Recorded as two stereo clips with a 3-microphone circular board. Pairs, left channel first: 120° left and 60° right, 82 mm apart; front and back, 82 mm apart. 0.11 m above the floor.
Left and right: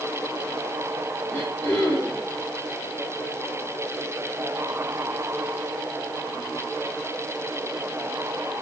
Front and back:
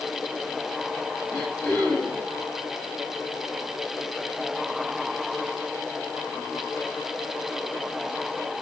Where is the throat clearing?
65° left, 6.5 m.